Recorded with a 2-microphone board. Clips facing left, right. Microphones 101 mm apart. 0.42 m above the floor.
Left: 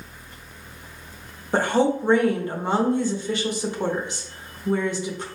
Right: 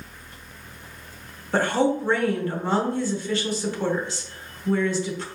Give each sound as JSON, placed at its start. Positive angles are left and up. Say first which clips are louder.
{"t": 1.5, "sound": "a woman speaking", "louder": "left 1 dB", "side_deg": 20, "distance_m": 0.9}